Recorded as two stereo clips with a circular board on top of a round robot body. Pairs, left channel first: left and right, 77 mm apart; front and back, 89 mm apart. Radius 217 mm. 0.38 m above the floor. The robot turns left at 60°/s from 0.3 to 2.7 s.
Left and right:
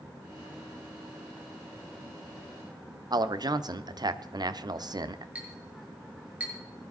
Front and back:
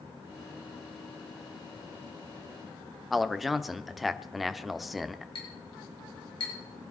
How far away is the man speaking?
About 1.2 m.